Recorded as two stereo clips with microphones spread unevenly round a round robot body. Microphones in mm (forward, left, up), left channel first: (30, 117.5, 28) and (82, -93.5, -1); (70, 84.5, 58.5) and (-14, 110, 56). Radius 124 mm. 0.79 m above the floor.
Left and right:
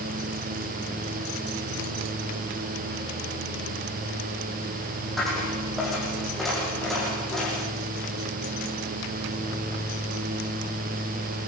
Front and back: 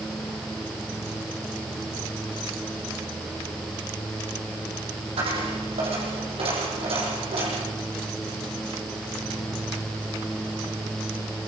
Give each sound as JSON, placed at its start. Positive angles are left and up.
{"t": 5.2, "sound": "a dropped coin", "azimuth_deg": -170, "distance_m": 8.0}